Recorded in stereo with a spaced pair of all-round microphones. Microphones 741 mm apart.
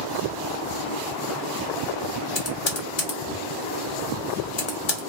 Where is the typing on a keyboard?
40° left (ahead or behind), 0.7 m.